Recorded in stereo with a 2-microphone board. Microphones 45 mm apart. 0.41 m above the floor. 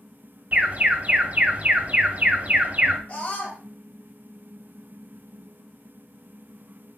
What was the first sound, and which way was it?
An alarm, 35° right (ahead or behind).